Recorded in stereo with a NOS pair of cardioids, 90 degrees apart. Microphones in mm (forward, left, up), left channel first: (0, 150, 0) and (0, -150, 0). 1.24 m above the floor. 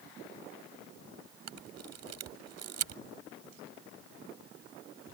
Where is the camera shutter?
60° right.